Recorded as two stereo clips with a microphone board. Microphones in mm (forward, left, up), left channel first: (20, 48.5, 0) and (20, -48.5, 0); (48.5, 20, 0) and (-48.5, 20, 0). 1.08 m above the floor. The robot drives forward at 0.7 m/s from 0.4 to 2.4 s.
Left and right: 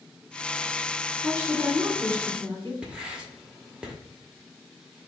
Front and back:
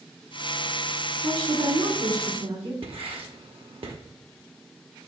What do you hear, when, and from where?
1.2 s a woman speaking: 155° left, 1.9 m; by 2.7 s 165° left, 2.5 m
2.8 s writing: 170° right, 0.9 m